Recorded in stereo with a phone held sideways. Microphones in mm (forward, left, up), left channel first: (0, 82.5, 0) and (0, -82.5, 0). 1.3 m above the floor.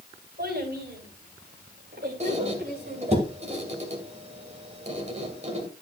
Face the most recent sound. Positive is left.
turn(degrees=-40)  # may be behind; listen again after turning